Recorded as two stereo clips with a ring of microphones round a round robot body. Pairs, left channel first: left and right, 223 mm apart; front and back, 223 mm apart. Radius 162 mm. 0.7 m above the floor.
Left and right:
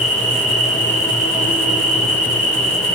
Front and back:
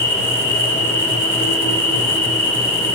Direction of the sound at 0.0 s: 30° right.